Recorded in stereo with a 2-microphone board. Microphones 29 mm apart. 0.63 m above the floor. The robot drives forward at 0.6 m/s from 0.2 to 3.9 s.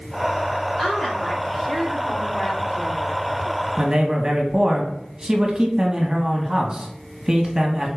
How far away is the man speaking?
About 0.9 m.